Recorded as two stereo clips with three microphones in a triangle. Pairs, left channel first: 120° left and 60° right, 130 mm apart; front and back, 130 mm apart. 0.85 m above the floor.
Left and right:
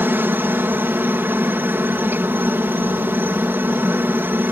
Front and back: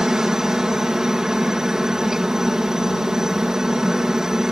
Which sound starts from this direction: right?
A helicopter, at 0.0 s.